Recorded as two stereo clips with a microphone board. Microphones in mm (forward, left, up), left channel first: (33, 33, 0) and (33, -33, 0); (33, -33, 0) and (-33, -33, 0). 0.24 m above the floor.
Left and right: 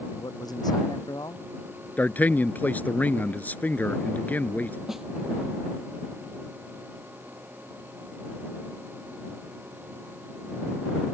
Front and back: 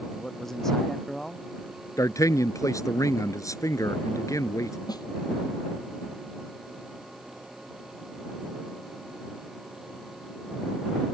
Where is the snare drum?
5° right.